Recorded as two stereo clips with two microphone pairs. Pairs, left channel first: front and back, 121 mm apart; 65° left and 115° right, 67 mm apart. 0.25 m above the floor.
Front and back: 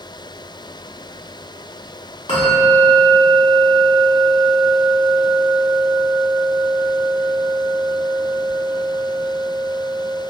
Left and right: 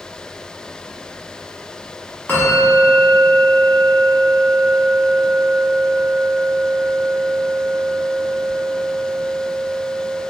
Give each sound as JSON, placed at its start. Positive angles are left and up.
{"t": 2.3, "sound": "a bell", "azimuth_deg": 10, "distance_m": 0.8}